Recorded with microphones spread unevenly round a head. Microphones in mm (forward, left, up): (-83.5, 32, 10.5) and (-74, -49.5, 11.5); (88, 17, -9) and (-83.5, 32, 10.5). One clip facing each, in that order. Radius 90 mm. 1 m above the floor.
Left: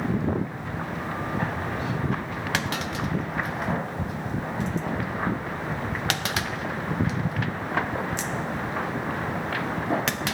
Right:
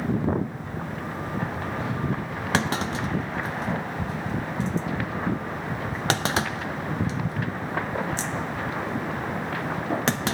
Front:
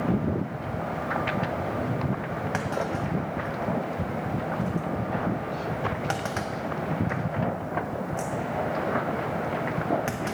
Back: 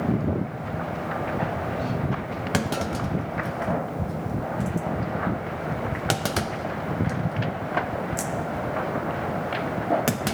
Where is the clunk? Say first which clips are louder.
Right 5 dB, back 4 dB; 135° right, 0.6 m.